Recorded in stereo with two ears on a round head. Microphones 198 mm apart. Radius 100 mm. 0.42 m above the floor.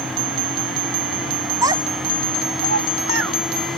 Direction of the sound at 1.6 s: 15° right (ahead or behind).